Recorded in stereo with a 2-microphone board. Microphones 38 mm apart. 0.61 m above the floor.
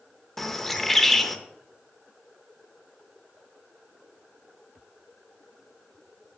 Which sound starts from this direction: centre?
A bird, at 0.4 s.